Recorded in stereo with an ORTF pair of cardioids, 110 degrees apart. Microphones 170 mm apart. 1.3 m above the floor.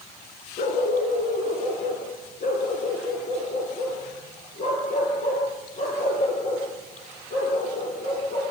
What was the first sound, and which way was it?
A dog barking, 50° left.